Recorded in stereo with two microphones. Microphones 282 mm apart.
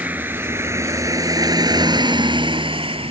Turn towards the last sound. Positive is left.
turn(degrees=-20)  # may be behind; listen again after turning